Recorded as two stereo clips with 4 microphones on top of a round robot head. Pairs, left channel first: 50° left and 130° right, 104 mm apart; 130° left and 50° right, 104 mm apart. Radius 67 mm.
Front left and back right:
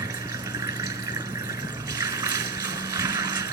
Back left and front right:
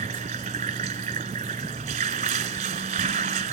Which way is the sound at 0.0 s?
75° right.